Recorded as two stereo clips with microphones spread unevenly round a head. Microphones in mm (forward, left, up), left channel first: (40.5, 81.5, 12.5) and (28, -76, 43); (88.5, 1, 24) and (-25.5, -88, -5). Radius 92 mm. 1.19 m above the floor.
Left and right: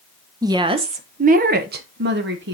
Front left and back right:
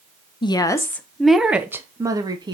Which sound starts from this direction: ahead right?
A woman speaking, at 0.4 s.